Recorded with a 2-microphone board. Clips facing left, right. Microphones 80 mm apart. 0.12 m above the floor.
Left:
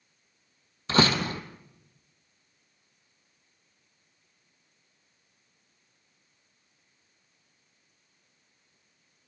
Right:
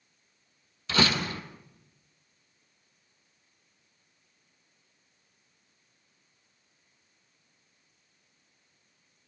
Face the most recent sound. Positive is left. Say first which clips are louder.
# left 3 dB
turn(degrees=35)  # may be behind; listen again after turning